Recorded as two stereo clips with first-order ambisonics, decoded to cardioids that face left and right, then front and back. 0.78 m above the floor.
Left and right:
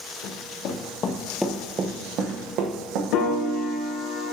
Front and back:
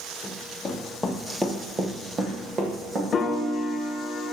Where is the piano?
65° left, 0.6 m.